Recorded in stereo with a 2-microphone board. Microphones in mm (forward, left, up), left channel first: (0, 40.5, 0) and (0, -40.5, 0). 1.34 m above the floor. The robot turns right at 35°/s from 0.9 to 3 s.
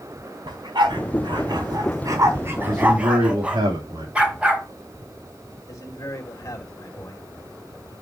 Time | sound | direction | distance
0.5 | a dog barking | 70° right (ahead or behind) | 3 m
2.7 | a man speaking | 75° right (ahead or behind) | 3.5 m
4.2 | a dog barking | 15° right (ahead or behind) | 3 m
5.7 | a man speaking | 45° left (ahead or behind) | 2.5 m